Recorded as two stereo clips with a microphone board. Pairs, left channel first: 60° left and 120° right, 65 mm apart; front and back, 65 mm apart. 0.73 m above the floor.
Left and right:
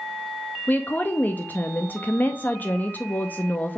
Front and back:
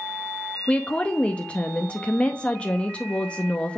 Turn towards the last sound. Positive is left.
turn(degrees=50)